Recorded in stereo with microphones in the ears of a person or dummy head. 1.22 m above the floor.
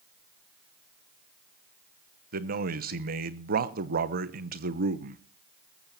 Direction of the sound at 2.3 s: 50° right (ahead or behind).